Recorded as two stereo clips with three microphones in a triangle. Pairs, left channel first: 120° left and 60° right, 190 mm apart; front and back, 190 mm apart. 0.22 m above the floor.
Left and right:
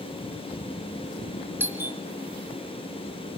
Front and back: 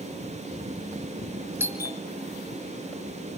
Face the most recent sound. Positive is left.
turn(degrees=-120)